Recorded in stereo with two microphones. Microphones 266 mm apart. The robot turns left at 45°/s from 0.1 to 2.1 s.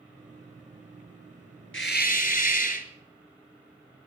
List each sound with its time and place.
1.7 s a hiss: 45° left (ahead or behind), 1.3 m; by 2.9 s 30° left (ahead or behind), 1.3 m